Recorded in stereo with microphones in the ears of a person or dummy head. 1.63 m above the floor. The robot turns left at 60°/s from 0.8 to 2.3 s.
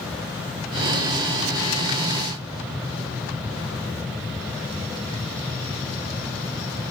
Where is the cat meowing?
I don't hear a cat meowing.